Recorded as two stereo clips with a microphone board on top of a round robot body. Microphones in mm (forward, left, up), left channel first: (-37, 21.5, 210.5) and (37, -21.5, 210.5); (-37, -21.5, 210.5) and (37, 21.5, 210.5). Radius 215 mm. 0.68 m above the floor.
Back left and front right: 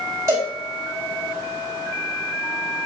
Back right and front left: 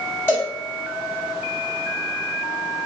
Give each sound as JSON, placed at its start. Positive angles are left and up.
{"t": 0.3, "sound": "a cowbell", "azimuth_deg": -85, "distance_m": 3.5}